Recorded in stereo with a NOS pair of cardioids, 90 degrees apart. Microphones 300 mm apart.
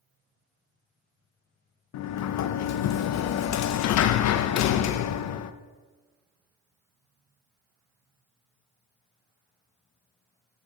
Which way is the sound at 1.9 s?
60° left.